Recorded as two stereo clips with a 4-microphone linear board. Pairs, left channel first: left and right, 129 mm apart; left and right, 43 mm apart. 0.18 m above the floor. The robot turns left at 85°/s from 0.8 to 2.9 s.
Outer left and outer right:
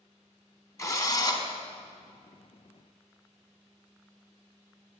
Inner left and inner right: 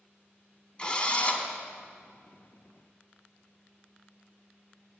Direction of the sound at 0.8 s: 125° left.